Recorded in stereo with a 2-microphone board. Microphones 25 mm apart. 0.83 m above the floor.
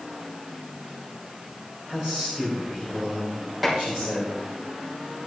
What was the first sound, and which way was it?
A man speaking, 30° right (ahead or behind).